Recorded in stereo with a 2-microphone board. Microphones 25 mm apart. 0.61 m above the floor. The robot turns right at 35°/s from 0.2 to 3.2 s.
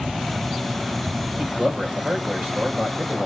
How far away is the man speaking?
About 3 m.